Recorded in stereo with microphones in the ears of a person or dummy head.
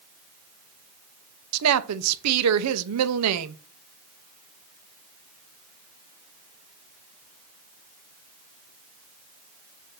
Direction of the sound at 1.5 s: 85° right.